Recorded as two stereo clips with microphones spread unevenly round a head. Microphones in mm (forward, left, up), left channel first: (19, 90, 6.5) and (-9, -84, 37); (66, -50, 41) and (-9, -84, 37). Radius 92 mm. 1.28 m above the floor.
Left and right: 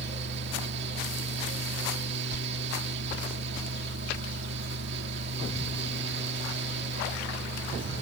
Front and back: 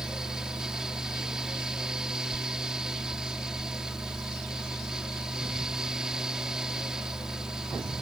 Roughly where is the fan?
Right.